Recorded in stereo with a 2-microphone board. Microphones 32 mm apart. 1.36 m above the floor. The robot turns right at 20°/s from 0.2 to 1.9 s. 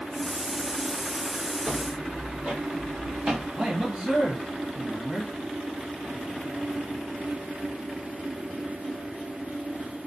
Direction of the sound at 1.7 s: 50° right (ahead or behind).